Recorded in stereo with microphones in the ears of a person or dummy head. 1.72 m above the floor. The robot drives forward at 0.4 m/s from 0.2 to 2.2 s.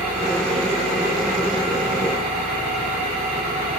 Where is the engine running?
40° right (ahead or behind), 5.5 m; by 3.8 s 45° right (ahead or behind), 5 m.